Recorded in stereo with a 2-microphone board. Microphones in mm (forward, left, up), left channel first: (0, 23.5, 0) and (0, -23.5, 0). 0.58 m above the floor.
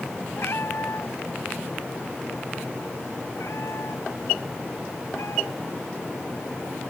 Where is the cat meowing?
60° left (ahead or behind); by 5.9 s 80° left.